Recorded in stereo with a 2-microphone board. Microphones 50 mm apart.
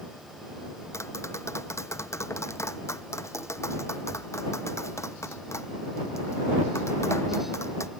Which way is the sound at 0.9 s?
70° left (ahead or behind).